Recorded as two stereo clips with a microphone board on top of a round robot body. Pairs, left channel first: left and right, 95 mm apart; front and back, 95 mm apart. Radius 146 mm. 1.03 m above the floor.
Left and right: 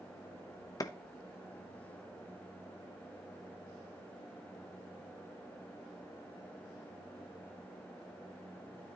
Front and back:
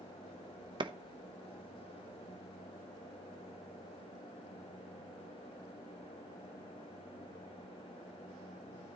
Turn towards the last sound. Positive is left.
turn(degrees=145)